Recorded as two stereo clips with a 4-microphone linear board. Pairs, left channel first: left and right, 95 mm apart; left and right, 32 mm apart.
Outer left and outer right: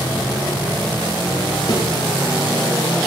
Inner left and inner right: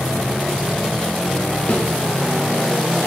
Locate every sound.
1.7 s a thud: 50° left (ahead or behind), 2.5 m